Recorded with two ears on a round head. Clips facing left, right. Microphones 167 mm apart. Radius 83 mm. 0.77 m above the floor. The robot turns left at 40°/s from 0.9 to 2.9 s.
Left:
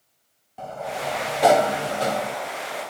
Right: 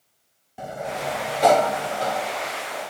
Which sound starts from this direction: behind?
A sliding door, at 0.6 s.